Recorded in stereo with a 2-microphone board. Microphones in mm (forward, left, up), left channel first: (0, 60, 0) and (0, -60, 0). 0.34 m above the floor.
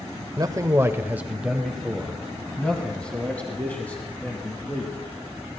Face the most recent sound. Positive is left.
turn(degrees=15)  # may be behind; listen again after turning